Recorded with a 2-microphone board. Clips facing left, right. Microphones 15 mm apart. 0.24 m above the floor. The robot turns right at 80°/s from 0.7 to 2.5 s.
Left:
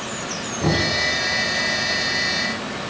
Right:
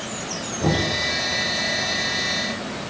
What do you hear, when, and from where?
0.6 s knocking: 5° left (ahead or behind), 2.5 m; by 0.9 s 20° left (ahead or behind), 2.5 m